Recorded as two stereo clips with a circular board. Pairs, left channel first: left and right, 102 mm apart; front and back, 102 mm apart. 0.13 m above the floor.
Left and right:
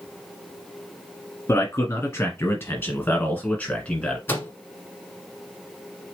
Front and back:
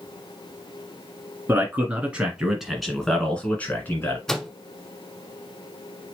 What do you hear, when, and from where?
1.5 s a man speaking: 130° left, 1.7 m; by 4.2 s 20° left, 1.5 m
4.3 s a microwave: 80° left, 1.0 m